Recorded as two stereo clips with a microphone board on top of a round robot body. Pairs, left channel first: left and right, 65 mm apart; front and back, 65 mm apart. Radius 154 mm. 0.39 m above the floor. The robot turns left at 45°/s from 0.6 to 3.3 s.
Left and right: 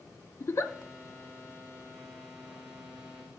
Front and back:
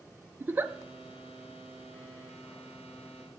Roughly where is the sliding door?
No sliding door in this recording.